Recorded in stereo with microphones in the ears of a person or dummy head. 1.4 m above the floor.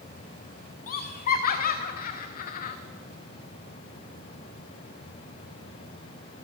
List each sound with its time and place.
0.9 s laughter: 45° left (ahead or behind), 0.7 m